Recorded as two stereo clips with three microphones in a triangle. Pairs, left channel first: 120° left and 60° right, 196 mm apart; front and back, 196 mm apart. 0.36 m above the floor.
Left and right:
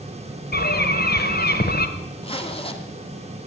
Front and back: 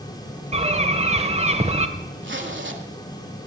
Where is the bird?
130° left, 1.4 m.